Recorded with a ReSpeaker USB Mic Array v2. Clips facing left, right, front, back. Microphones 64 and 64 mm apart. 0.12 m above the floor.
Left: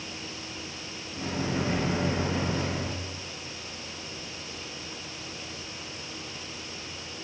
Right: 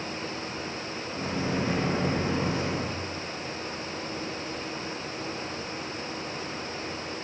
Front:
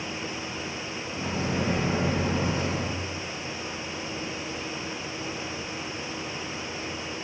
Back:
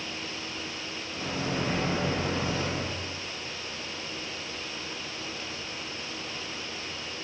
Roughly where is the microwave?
Right.